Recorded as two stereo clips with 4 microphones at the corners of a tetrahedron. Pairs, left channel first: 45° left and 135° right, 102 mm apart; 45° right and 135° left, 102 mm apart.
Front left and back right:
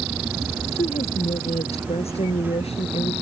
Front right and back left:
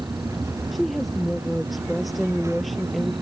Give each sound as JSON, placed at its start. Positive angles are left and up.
{"t": 0.7, "sound": "a woman speaking", "azimuth_deg": 45}